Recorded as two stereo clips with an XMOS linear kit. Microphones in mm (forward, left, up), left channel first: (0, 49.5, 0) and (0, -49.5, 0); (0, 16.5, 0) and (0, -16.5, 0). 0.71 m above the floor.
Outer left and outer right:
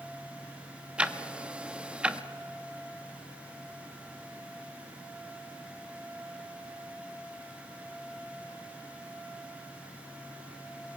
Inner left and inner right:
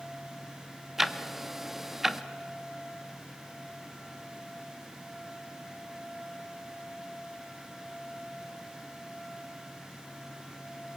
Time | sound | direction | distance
1.0 | ticking | 10° right (ahead or behind) | 0.8 m